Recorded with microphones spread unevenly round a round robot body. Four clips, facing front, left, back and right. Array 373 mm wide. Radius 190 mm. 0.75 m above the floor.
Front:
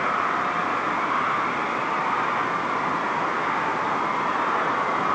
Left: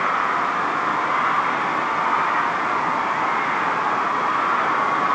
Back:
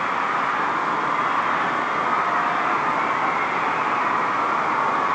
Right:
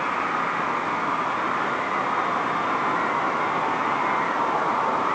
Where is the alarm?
No alarm in this recording.